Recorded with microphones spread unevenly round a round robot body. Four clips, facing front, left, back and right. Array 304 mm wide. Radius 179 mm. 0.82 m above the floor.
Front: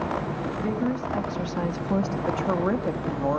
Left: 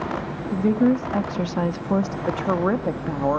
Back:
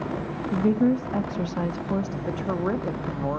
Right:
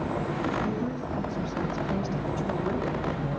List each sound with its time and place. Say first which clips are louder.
0.5 s a woman speaking: left 10 dB, back 8 dB; 120° left, 1.3 m; by 2.2 s 55° left, 1.2 m
2.3 s a woman speaking: left 9 dB, front 2 dB; 65° left, 1.3 m